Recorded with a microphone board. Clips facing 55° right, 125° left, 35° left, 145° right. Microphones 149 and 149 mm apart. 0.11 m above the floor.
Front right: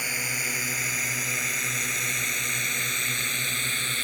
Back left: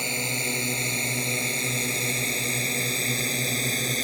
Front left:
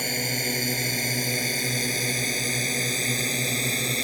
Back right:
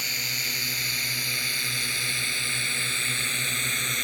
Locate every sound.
0.0 s a drone: 65° left; by 4.0 s 80° left